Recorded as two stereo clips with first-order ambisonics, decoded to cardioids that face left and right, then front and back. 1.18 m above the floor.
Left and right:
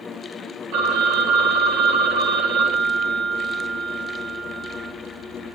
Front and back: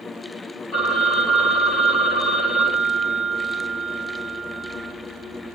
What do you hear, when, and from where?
0.7 s a phone ringing: 75° right, 1.5 m